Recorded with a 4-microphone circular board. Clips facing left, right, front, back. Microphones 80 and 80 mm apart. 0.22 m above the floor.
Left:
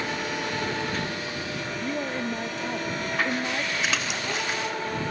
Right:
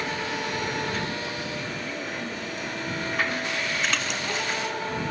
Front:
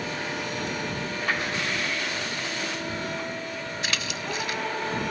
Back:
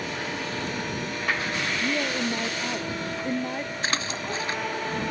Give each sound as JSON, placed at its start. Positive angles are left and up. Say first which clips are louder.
{"t": 1.8, "sound": "a woman speaking", "louder": "left 4 dB, back 4 dB", "azimuth_deg": 145}
{"t": 3.8, "sound": "a splash", "louder": "even, back 2 dB", "azimuth_deg": 175}